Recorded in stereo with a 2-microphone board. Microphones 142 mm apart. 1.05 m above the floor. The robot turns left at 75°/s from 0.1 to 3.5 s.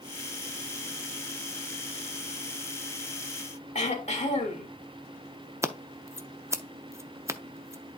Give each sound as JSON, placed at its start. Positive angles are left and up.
{"t": 3.8, "sound": "throat clearing", "side_deg": 50, "distance_m": 1.9}
{"t": 5.6, "sound": "scissors", "side_deg": -20, "distance_m": 0.5}